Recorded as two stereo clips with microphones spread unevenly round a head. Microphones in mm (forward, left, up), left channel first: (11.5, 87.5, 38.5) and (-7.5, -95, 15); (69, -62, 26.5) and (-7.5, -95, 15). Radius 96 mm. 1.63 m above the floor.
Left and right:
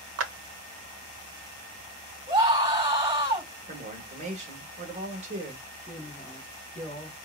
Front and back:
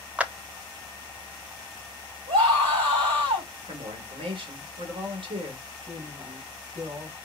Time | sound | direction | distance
0.2 | a clap | 80° right | 0.9 m
2.3 | a scream | 165° right | 4 m
3.7 | a woman speaking | 150° right | 2.5 m
5.9 | a woman speaking | 145° left | 3 m